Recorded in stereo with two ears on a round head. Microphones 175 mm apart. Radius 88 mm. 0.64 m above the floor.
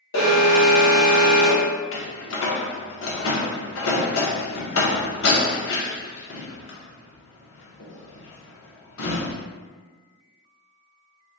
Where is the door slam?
70° left (ahead or behind), 0.8 m.